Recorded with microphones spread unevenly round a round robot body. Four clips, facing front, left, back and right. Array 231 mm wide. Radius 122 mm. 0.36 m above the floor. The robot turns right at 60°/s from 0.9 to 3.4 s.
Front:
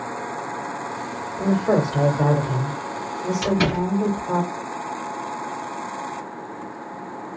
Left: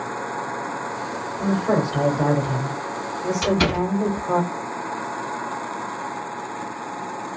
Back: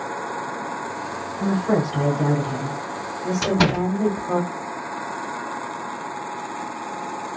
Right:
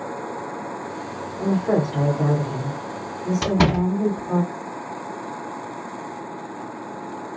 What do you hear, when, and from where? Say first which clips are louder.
1.4 s a woman speaking: even, front 2 dB; 25° right, 1.5 m; by 4.4 s 95° left, 1.5 m
3.4 s a door slam: right 1 dB, back 1 dB; 110° right, 2 m